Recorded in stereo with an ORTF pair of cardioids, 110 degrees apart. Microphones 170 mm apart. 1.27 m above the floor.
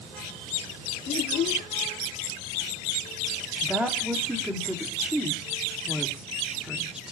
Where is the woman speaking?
5° right, 3 m.